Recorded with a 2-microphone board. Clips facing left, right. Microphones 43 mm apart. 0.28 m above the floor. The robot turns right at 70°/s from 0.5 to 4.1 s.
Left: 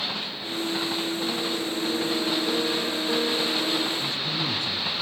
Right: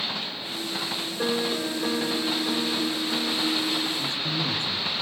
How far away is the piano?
About 2 m.